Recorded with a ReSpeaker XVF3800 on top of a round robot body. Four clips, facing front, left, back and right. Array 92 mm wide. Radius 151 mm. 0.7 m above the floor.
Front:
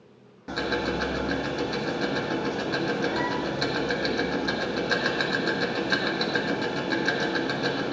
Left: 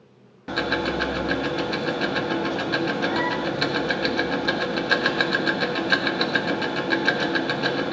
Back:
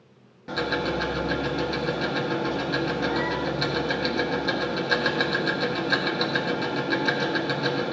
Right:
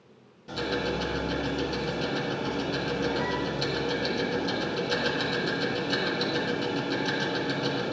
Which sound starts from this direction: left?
Ticking, at 0.5 s.